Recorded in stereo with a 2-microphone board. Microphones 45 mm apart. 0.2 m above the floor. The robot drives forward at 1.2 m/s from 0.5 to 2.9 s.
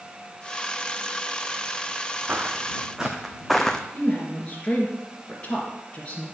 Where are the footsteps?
35° right (ahead or behind), 0.8 m; by 3.8 s 20° left (ahead or behind), 0.7 m.